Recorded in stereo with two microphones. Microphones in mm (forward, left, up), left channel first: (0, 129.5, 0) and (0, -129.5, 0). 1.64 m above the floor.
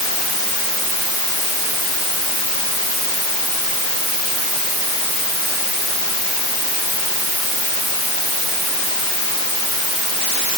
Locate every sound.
Only background noise.